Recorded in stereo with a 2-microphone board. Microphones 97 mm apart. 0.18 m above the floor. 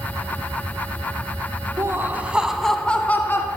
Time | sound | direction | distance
1.8 | laughter | 30° right (ahead or behind) | 1.3 m